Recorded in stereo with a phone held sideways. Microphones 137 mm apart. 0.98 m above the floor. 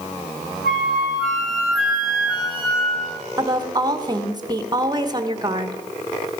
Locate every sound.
0.6 s a flute: centre (ahead or behind), 3 m
3.4 s a woman speaking: 30° right (ahead or behind), 0.9 m